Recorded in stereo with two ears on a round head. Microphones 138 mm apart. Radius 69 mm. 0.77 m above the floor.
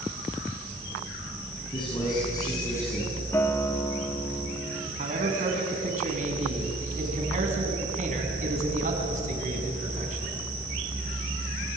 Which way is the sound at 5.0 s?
50° right (ahead or behind).